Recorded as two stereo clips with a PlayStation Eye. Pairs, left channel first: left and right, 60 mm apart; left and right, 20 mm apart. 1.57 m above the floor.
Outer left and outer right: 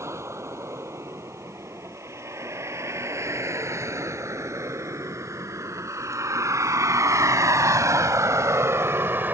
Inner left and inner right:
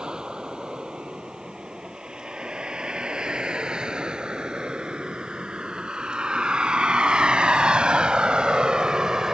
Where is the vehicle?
55° right (ahead or behind); by 9.3 s 35° right (ahead or behind).